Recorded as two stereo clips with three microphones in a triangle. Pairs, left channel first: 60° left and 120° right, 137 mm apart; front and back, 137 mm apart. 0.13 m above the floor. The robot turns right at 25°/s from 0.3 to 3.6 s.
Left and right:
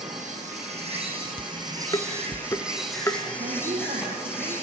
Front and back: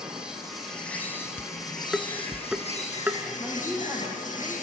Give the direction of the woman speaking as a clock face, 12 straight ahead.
3 o'clock.